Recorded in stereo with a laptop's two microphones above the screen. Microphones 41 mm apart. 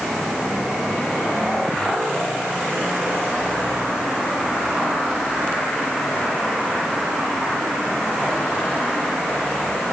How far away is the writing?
No writing in this recording.